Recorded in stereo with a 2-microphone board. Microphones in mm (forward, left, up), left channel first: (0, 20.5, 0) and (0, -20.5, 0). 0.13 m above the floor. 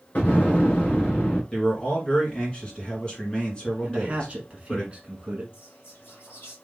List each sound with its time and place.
0.1 s an explosion: 45° left (ahead or behind), 1.7 m
1.5 s a man speaking: 25° left (ahead or behind), 1.7 m
3.8 s a man speaking: 25° right (ahead or behind), 1.1 m
5.5 s whispering: 60° left (ahead or behind), 3 m